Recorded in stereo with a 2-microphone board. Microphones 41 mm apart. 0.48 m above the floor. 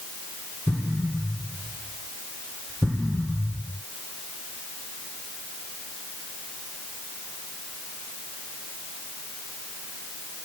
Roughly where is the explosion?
Centre.